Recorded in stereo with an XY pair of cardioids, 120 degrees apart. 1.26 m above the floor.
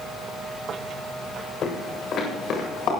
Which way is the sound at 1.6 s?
55° left.